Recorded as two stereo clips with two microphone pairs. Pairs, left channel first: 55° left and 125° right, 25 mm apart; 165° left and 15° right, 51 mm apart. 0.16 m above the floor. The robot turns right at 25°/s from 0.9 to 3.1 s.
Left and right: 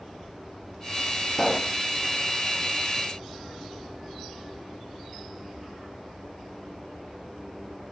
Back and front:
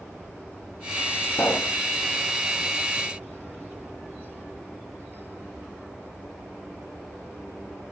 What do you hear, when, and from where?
1.3 s a pop: 125° left, 1.0 m; by 1.8 s 135° left, 1.0 m